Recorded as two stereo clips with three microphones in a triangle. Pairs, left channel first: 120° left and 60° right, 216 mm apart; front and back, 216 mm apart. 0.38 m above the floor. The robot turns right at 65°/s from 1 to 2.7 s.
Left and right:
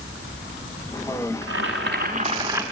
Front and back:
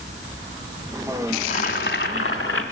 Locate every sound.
1.4 s boiling: 60° right, 1.4 m; by 2.6 s 20° left, 1.4 m